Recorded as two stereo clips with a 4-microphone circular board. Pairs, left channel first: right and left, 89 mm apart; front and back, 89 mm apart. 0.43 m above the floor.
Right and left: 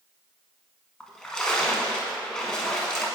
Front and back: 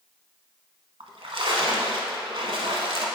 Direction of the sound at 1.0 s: 170° right.